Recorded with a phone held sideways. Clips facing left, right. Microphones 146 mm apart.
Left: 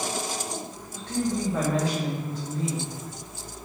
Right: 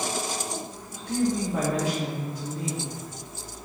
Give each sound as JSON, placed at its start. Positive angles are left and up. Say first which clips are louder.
{"t": 0.9, "sound": "a woman speaking", "louder": "right 2 dB", "side_deg": -15, "distance_m": 1.7}